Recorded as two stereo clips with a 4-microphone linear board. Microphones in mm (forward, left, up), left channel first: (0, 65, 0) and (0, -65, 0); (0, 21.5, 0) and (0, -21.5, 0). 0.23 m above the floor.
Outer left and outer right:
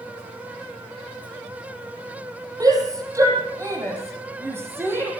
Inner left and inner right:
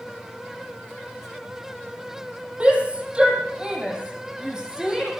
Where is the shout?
30° right (ahead or behind), 7 m; by 5.1 s 15° right (ahead or behind), 8 m.